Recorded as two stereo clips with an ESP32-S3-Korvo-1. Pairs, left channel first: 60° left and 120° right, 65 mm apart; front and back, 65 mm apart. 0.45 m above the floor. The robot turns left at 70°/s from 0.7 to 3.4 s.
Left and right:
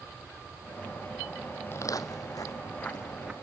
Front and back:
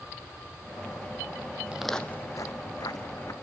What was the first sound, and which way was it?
Footsteps, 110° left.